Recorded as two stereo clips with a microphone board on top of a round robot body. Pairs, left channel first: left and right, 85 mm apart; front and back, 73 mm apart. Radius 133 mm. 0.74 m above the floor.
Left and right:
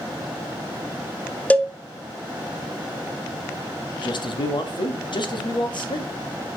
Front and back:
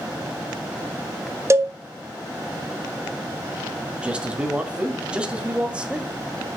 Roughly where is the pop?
I don't hear a pop.